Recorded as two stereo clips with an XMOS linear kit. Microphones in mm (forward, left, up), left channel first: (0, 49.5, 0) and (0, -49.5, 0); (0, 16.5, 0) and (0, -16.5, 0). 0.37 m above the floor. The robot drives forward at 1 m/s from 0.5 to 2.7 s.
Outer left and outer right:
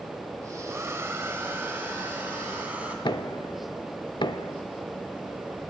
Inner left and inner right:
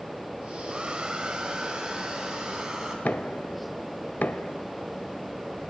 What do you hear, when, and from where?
0.7 s a hair dryer: 25° right (ahead or behind), 1.7 m; by 3.0 s 15° right (ahead or behind), 3.5 m
3.0 s knocking: 55° left (ahead or behind), 0.8 m